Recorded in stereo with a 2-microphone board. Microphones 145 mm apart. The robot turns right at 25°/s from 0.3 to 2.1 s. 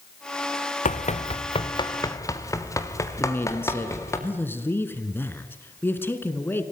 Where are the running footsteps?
60° left (ahead or behind), 0.9 m; by 4.2 s 20° left (ahead or behind), 4 m.